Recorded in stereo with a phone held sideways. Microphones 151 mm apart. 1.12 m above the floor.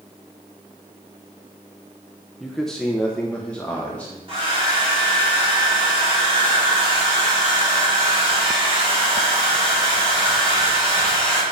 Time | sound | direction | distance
2.4 | a man speaking | centre (ahead or behind) | 0.8 m
4.3 | a hair dryer | 40° right (ahead or behind) | 4.5 m